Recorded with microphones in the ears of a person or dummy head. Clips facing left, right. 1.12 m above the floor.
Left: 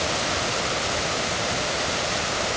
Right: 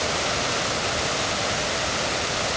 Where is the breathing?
I don't hear breathing.